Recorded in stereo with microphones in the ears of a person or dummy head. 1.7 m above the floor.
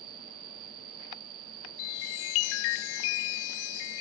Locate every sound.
0.0 s an insect: 45° right (ahead or behind)
1.8 s a chime: 70° left (ahead or behind)